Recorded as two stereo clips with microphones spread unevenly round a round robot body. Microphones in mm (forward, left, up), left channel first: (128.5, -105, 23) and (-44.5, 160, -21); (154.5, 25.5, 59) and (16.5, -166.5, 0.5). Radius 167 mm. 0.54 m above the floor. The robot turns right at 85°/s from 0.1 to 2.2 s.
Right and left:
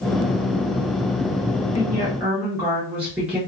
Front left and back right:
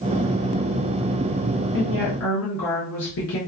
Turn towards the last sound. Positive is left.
turn(degrees=50)